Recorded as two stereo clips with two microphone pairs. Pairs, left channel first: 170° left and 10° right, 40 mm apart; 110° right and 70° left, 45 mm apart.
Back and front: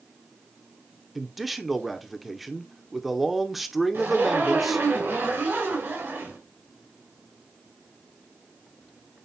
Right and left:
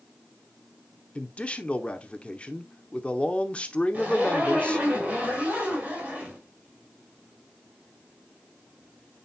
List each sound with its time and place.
1.1 s a man speaking: 100° right, 0.8 m
3.9 s a zipper: 10° left, 4 m